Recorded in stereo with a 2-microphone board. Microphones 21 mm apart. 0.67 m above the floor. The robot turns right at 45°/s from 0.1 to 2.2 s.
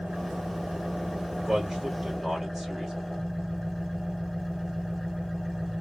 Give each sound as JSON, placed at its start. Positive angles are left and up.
{"t": 0.0, "sound": "an engine running", "azimuth_deg": -90, "distance_m": 3.5}
{"t": 1.4, "sound": "a man speaking", "side_deg": -30, "distance_m": 2.5}